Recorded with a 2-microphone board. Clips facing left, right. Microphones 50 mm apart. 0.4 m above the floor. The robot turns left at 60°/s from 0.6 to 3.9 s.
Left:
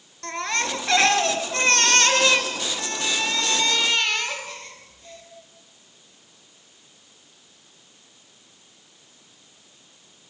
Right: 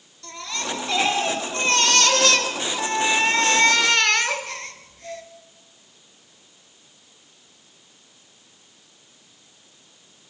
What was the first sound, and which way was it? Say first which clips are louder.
A baby crying: left 5 dB; 125° left.